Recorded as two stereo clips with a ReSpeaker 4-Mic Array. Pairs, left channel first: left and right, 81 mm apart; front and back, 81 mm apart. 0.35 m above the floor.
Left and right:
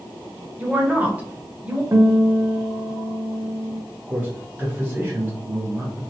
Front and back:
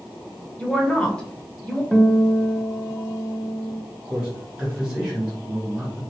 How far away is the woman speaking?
About 0.9 m.